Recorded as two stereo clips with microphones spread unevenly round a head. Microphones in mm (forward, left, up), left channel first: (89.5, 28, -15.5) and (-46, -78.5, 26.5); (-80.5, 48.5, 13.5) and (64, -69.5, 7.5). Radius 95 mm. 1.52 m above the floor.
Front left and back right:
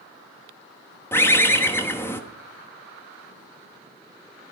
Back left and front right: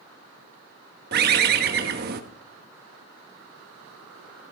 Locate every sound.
1.1 s a bird: 50° right, 1.1 m